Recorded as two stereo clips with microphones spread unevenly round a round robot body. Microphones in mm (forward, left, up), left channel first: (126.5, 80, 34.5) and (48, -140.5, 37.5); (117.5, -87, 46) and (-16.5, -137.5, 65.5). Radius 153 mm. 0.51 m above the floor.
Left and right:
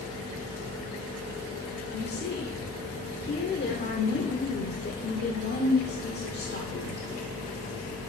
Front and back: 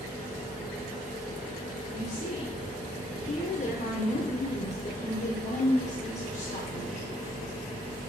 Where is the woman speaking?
30° left, 1.4 m.